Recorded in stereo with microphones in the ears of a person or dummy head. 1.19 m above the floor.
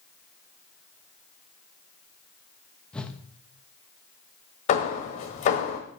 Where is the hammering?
35° left (ahead or behind), 1.3 m.